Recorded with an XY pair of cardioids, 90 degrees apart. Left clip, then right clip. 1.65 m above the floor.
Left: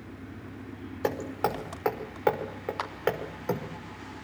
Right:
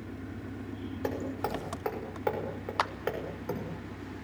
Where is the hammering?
45° left, 5 m.